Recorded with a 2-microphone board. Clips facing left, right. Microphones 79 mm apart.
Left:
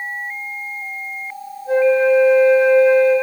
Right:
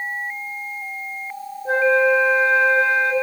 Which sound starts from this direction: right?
A flute, at 1.6 s.